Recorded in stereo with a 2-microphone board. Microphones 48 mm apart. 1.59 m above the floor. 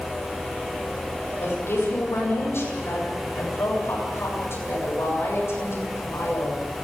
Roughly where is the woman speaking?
Left.